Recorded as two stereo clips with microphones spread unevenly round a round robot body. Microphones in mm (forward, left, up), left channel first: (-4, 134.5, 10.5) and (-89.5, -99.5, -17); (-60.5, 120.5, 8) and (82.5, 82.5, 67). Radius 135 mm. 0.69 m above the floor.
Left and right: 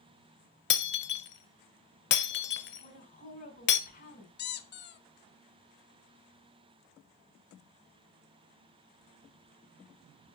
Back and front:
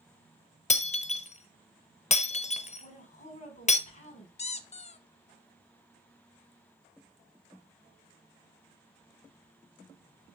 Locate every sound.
0.7 s breaking glass: 115° left, 0.8 m
2.8 s a woman speaking: 130° left, 5 m
4.4 s a squeak: 110° left, 0.8 m